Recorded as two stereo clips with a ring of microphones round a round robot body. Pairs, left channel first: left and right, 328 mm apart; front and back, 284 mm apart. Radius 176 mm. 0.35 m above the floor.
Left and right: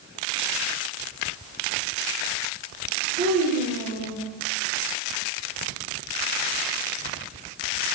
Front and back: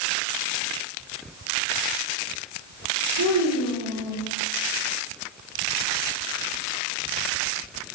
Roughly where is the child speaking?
Behind right.